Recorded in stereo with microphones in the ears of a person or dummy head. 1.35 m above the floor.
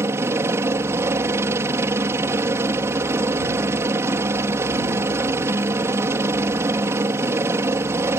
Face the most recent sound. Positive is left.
turn(degrees=-15)  # may be behind; listen again after turning